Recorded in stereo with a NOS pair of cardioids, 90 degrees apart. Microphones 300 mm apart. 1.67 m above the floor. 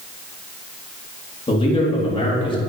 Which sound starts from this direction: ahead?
A man speaking, at 1.5 s.